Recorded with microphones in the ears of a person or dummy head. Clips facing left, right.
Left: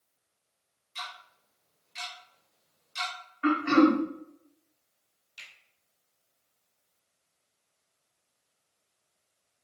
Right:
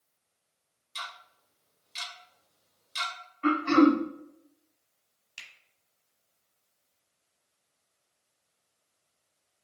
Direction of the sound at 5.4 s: 85° right.